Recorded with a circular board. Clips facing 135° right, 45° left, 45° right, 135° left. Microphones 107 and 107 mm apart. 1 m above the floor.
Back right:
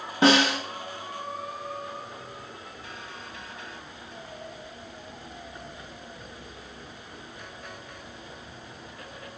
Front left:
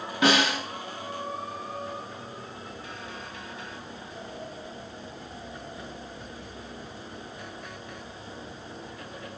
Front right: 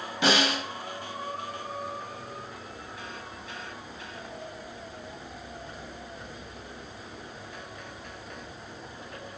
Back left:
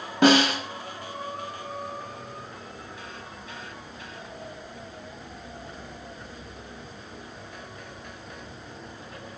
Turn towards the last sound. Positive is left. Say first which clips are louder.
# back right 3 dB, back left 7 dB
turn(degrees=170)